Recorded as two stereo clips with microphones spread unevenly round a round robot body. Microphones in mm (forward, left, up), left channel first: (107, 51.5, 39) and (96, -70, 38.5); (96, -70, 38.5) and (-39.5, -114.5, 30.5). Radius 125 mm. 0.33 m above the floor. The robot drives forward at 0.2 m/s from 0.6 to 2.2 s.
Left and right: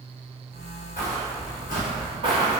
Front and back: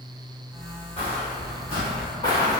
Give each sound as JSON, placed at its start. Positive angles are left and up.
{"t": 1.0, "sound": "footsteps", "azimuth_deg": 95, "distance_m": 1.4}